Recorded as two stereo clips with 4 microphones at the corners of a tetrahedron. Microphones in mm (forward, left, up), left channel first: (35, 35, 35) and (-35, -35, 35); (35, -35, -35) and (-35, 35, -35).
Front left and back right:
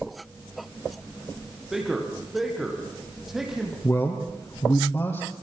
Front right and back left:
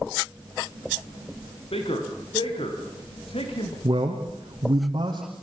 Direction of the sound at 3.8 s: 95° left.